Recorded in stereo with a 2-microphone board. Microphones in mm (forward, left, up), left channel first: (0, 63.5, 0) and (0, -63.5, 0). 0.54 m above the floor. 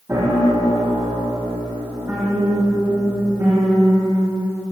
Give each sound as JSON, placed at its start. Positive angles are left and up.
{"t": 0.1, "sound": "a piano", "side_deg": -20, "distance_m": 8.0}